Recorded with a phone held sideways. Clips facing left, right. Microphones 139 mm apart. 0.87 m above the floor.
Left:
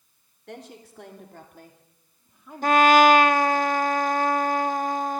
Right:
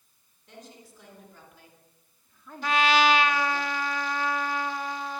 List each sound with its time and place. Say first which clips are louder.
0.5 s a woman speaking: left 7 dB; 75° left (ahead or behind), 3.5 m; by 3.6 s 15° right (ahead or behind), 3 m
2.6 s a trumpet: left 7 dB; 45° left (ahead or behind), 0.7 m